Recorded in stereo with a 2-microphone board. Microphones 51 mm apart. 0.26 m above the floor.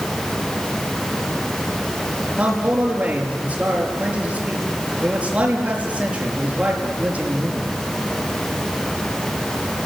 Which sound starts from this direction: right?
A man speaking, at 2.4 s.